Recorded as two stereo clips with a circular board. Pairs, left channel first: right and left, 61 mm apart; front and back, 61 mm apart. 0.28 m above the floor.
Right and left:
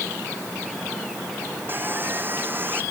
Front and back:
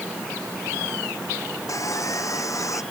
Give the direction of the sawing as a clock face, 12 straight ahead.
11 o'clock.